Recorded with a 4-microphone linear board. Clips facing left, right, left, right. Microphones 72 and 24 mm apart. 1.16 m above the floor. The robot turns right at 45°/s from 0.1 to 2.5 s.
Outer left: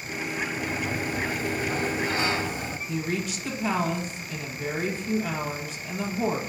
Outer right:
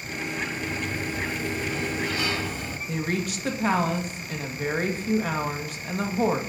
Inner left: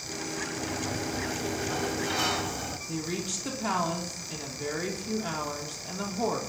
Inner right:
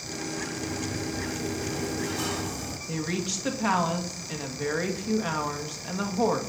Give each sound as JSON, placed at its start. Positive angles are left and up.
{"t": 0.6, "sound": "a sliding door", "azimuth_deg": 70, "distance_m": 0.9}
{"t": 2.9, "sound": "a woman speaking", "side_deg": -55, "distance_m": 2.0}